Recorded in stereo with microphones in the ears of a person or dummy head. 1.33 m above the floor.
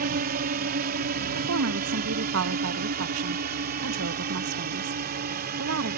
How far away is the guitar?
No guitar in this recording.